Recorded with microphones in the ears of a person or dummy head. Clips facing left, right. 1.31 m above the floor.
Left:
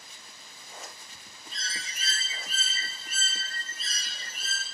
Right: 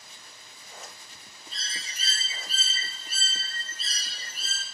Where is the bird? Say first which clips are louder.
Left 2 dB; 30° right (ahead or behind), 0.6 m.